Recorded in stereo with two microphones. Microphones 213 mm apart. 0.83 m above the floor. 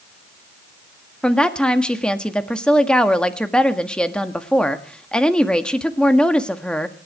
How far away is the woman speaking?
About 1.5 m.